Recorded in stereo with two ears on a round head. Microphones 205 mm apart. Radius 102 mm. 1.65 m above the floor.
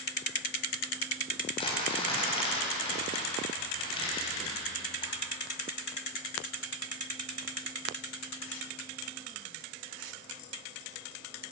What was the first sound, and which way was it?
Crumpling, 25° left (ahead or behind).